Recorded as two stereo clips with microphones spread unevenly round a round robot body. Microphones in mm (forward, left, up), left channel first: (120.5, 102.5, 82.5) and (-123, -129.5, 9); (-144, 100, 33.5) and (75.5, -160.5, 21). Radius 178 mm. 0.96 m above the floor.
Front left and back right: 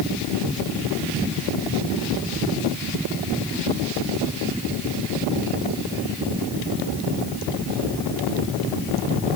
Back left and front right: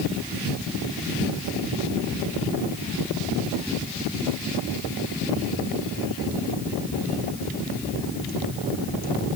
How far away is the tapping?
I don't hear tapping.